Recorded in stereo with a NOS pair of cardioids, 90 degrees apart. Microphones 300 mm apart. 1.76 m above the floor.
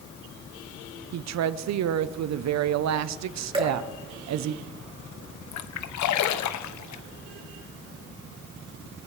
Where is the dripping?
15° right, 3 m.